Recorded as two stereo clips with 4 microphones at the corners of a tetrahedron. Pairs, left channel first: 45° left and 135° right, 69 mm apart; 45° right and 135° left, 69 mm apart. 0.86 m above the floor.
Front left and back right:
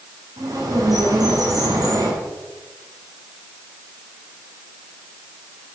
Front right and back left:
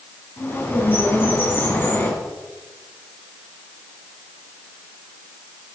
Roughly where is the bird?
Right.